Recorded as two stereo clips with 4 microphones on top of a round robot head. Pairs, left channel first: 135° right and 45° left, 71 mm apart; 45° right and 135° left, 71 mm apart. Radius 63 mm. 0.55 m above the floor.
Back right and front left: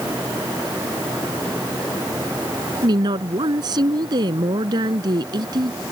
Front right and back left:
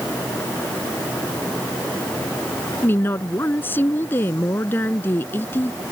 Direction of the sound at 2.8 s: 15° left.